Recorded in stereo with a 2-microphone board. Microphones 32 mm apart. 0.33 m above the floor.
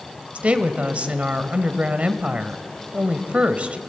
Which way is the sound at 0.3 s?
45° right (ahead or behind).